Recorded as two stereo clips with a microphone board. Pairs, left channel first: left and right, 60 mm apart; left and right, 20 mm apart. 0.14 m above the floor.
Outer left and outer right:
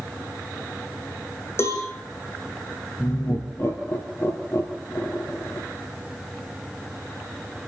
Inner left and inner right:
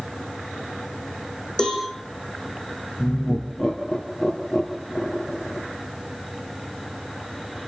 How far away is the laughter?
About 3.5 m.